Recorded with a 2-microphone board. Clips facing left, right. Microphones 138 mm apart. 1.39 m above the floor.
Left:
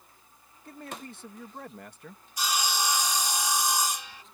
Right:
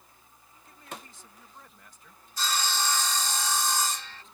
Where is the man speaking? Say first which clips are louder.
Left 5 dB; 75° left (ahead or behind).